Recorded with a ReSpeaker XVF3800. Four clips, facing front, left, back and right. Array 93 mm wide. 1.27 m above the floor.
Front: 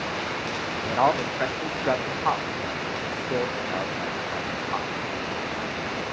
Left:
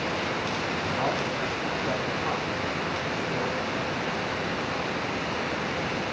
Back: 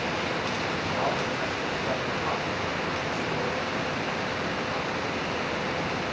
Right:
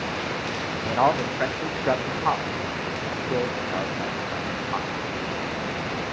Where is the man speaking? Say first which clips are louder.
Right 9 dB, front 8 dB; 50° right, 1.1 m.